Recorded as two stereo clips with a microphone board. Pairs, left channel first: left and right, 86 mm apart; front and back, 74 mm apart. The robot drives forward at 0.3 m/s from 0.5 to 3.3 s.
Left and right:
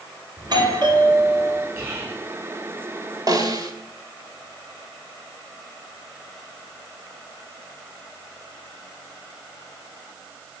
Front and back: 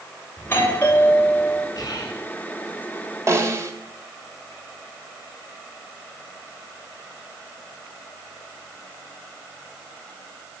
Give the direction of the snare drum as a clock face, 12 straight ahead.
4 o'clock.